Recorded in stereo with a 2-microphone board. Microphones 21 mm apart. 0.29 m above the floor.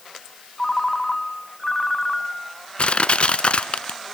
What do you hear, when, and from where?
0.6 s a ringtone: 15° left (ahead or behind), 1.4 m
2.8 s crushing: 65° left (ahead or behind), 0.7 m